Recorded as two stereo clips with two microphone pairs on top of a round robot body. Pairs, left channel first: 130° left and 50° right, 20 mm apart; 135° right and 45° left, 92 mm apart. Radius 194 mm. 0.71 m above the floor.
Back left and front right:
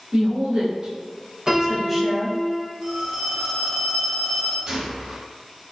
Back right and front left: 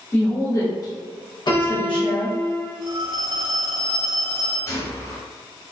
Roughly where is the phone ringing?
Ahead.